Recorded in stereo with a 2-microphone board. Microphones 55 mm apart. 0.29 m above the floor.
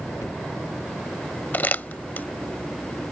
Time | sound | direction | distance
0.2 | a cupboard door | 75° left (ahead or behind) | ?
1.5 | crumpling | 30° left (ahead or behind) | ?